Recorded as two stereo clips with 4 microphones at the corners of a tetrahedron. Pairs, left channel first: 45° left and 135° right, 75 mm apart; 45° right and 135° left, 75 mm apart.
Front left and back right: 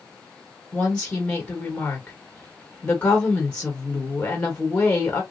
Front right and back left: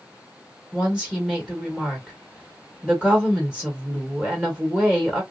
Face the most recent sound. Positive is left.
turn(degrees=90)